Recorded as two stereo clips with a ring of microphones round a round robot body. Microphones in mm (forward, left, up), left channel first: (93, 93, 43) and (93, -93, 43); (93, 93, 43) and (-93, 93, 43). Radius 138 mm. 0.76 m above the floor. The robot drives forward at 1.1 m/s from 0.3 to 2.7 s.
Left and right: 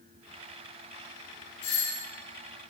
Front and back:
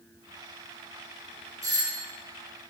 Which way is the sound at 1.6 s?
110° left.